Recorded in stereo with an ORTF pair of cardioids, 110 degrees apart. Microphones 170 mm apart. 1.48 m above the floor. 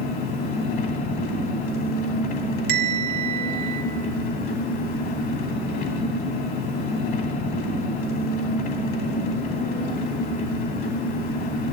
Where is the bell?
65° right, 1.3 m.